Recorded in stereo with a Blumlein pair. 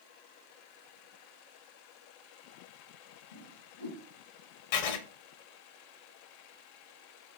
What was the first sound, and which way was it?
A whoosh, 70° left.